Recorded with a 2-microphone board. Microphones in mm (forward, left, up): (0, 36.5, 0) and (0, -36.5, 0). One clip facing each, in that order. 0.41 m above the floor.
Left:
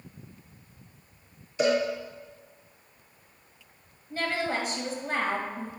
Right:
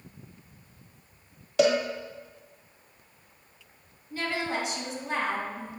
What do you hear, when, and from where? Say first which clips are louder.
1.6 s a cowbell: right 2 dB; 75° right (ahead or behind), 1.4 m
4.1 s a woman speaking: left 1 dB; 40° left (ahead or behind), 2.5 m